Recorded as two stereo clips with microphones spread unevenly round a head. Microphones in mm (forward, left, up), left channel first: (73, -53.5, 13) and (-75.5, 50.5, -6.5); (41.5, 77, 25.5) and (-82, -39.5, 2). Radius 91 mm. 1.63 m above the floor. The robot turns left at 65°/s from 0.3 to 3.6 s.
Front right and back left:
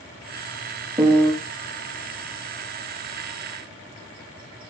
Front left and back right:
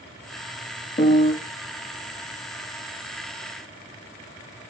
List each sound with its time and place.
1.0 s a piano: 70° left, 0.6 m; by 1.3 s 45° left, 0.6 m